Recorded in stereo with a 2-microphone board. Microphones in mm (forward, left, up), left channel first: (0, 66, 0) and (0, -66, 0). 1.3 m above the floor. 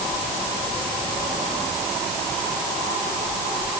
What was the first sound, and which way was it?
Only background noise.